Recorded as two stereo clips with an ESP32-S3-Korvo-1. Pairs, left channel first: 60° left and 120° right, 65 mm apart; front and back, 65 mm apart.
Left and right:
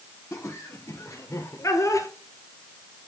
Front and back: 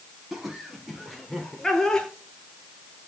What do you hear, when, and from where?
0.3 s laughter: 95° left, 4.5 m; by 2.1 s 75° left, 3 m